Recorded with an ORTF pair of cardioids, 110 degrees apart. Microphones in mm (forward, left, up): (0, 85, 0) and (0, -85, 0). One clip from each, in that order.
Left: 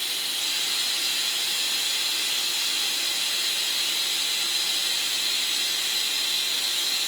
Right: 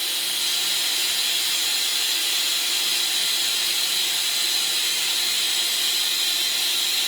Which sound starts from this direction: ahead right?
Running water, at 0.0 s.